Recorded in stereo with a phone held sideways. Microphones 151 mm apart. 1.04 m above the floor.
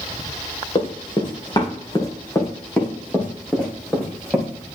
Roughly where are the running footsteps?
Left.